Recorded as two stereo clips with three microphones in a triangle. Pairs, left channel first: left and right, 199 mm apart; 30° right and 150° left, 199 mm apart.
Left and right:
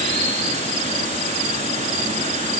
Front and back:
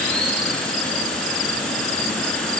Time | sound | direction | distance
0.0 | running water | 115° right | 1.5 m